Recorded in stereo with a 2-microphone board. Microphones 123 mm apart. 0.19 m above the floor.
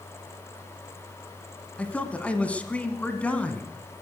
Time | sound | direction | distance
1.8 | a man speaking | 10° left (ahead or behind) | 1.6 m